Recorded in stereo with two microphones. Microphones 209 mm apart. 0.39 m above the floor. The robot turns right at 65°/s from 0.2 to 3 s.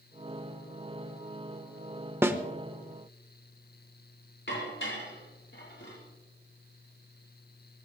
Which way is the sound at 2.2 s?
10° right (ahead or behind).